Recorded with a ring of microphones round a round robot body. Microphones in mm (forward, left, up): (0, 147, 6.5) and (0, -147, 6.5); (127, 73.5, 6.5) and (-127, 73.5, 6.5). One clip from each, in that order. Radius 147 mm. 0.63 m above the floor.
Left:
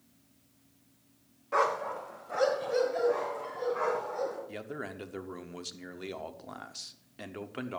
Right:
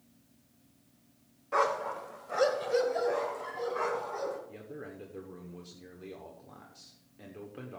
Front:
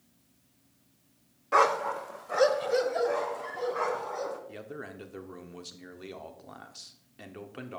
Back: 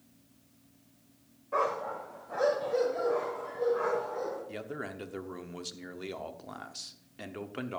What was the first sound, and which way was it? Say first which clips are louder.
A dog barking: left 1 dB, front 7 dB; 5° right.